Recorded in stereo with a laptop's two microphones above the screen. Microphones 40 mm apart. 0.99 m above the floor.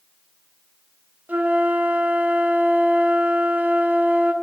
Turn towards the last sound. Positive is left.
turn(degrees=-50)  # may be behind; listen again after turning